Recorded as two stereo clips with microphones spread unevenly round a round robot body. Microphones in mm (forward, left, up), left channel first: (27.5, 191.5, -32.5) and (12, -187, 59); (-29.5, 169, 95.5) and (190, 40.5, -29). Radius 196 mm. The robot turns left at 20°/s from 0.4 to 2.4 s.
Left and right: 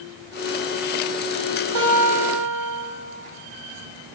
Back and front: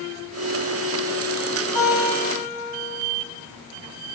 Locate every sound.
1.8 s a guitar: 130° right, 1.7 m; by 2.8 s 145° right, 1.7 m